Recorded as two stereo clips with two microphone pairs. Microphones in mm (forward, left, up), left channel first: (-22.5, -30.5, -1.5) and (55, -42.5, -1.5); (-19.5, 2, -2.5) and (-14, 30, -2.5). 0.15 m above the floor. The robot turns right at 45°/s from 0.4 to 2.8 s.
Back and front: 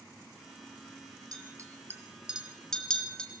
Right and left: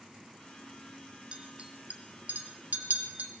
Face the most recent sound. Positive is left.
turn(degrees=90)